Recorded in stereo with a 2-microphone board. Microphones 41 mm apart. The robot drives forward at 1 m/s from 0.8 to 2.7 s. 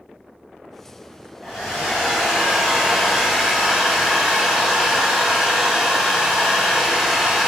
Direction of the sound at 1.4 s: 5° right (ahead or behind).